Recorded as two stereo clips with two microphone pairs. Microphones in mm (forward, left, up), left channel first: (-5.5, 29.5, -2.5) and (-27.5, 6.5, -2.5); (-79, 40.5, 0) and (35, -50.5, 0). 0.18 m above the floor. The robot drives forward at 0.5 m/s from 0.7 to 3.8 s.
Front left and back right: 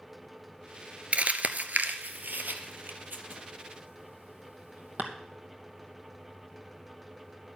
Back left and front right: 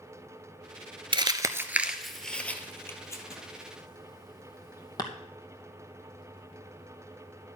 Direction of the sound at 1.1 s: 95° right.